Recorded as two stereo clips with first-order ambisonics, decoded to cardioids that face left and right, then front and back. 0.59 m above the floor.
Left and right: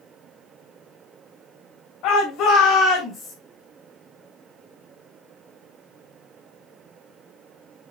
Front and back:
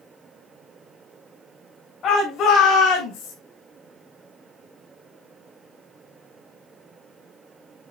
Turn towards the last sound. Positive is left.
turn(degrees=15)